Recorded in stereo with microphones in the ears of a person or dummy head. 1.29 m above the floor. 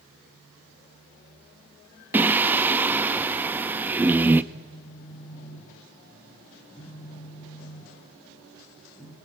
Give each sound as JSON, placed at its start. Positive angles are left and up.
{"t": 2.1, "sound": "singing", "side_deg": -10, "distance_m": 0.9}
{"t": 4.5, "sound": "a phone buzzing", "side_deg": 20, "distance_m": 6.5}